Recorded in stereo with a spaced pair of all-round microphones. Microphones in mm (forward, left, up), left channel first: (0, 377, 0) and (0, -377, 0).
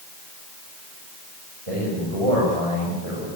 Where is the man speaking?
45° right (ahead or behind), 8.5 m.